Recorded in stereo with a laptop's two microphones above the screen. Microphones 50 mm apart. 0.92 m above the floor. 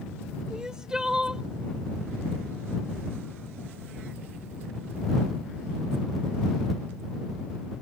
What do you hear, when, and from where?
0.5 s crying: 15° right (ahead or behind)